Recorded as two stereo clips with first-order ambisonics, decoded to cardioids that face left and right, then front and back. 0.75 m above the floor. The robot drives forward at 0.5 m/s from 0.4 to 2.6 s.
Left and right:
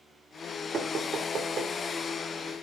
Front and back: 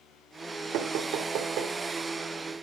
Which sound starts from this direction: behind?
Knocking, at 0.7 s.